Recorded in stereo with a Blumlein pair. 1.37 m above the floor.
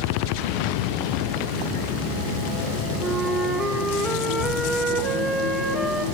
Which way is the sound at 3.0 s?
5° right.